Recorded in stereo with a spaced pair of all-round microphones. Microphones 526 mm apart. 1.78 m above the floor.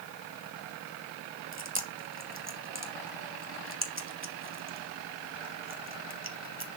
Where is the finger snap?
I don't hear a finger snap.